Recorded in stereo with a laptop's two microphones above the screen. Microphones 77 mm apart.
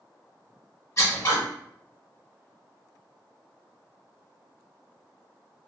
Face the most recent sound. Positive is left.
turn(degrees=35)  # may be behind; listen again after turning